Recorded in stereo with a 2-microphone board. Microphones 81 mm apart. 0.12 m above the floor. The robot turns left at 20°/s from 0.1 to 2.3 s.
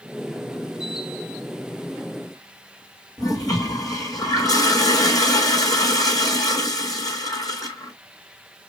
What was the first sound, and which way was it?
A toilet flushing, 45° left (ahead or behind).